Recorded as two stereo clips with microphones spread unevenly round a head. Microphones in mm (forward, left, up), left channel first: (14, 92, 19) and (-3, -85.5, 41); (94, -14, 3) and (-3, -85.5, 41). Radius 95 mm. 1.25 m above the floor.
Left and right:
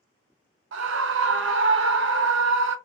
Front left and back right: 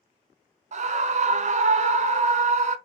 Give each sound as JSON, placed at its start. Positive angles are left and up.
{"t": 0.7, "sound": "a scream", "azimuth_deg": -120, "distance_m": 0.6}